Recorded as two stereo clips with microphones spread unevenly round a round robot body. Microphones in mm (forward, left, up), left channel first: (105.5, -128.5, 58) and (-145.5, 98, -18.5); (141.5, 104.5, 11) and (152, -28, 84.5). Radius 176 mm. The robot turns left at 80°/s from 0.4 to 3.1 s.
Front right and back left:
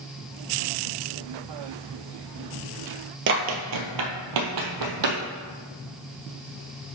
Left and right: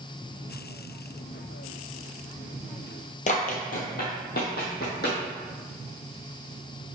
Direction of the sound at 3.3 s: 125° left.